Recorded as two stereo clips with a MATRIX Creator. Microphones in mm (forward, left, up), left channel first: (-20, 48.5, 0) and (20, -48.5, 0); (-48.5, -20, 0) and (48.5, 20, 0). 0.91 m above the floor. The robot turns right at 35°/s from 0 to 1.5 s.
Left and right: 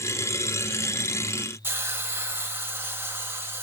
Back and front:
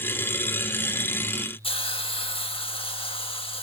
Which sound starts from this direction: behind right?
A hiss, at 1.6 s.